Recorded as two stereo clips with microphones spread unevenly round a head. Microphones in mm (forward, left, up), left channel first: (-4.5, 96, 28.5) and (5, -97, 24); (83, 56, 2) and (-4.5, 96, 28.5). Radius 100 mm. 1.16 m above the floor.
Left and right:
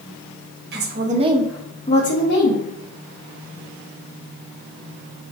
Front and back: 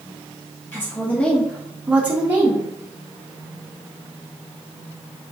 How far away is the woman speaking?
About 0.9 m.